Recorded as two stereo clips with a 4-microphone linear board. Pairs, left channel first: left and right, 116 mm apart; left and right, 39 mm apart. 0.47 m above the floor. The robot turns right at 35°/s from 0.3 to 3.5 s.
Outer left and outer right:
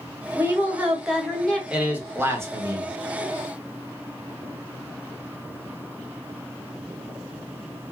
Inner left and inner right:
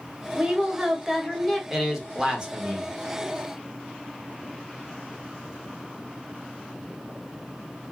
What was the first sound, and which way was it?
A woman speaking, 30° right.